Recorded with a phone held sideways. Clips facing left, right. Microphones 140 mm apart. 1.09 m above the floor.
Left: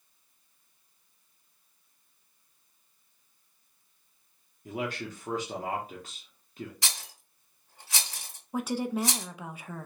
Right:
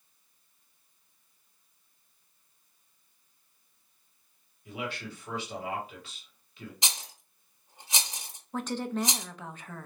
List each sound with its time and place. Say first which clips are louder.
4.7 s a man speaking: left 3 dB; 45° left (ahead or behind), 1.1 m
6.8 s a rattle: right 1 dB; 20° right (ahead or behind), 0.9 m
8.5 s a woman speaking: left 2 dB; 10° left (ahead or behind), 0.6 m